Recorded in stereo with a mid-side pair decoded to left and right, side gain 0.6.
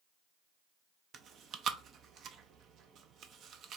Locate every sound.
1.1 s chewing: 50° right, 0.7 m